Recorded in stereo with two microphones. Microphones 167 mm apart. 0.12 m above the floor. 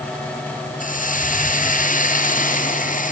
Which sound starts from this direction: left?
A hiss, at 0.8 s.